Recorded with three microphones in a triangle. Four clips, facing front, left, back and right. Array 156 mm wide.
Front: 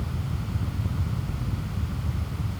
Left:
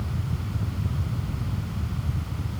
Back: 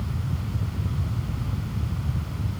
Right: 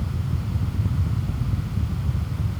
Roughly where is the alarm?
No alarm in this recording.